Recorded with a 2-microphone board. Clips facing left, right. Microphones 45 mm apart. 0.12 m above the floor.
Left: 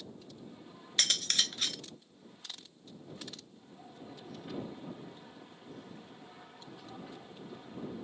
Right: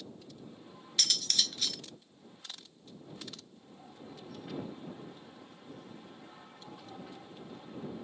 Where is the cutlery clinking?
40° left (ahead or behind).